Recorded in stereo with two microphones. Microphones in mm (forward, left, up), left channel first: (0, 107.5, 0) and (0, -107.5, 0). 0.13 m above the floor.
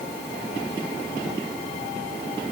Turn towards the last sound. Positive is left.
No sound to turn to.